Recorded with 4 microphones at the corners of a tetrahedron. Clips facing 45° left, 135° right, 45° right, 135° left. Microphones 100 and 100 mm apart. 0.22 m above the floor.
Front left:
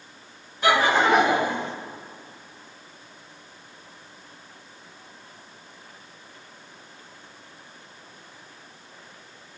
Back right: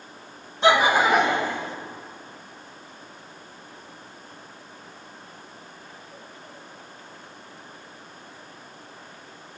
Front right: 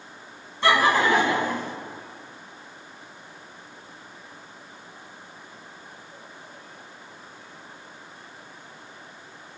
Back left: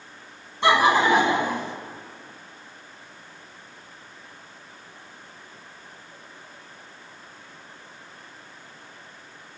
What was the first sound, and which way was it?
Laughter, 170° right.